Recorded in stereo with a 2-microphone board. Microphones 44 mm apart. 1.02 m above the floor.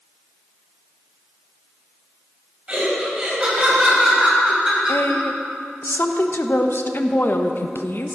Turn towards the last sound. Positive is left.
turn(degrees=55)  # may be behind; listen again after turning